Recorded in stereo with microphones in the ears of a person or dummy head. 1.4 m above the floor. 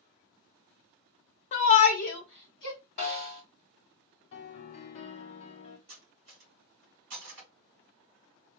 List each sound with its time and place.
1.5 s a shout: 35° left (ahead or behind), 0.7 m; by 2.8 s 65° left (ahead or behind), 1.2 m
3.0 s a snare drum: 35° left (ahead or behind), 1.3 m
4.3 s a piano: 35° left (ahead or behind), 0.6 m
5.9 s cutlery clinking: 55° right (ahead or behind), 3 m